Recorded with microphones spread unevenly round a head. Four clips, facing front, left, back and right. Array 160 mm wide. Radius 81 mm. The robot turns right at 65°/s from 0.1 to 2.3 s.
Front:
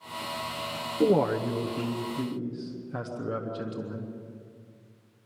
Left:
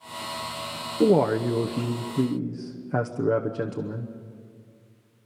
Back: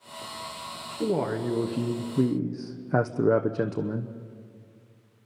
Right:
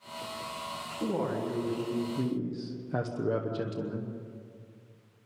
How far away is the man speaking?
About 1.0 m.